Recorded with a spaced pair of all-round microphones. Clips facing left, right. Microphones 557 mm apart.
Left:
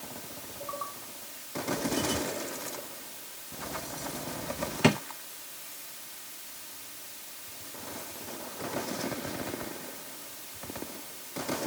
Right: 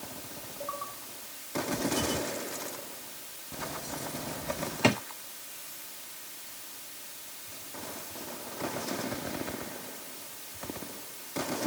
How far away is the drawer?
About 1.0 m.